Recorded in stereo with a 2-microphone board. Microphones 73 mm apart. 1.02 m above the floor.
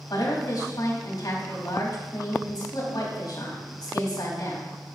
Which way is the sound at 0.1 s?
60° left (ahead or behind).